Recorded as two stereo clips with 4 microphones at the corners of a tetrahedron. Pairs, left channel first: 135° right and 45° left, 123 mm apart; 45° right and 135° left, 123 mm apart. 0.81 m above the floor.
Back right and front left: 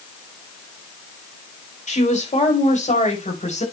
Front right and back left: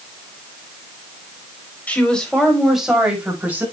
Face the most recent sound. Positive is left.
turn(degrees=-150)